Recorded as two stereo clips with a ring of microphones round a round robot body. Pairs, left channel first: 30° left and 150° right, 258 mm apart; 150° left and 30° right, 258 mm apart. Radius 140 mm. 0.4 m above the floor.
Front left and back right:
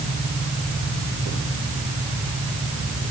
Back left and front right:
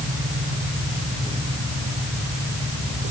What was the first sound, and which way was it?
Only background noise.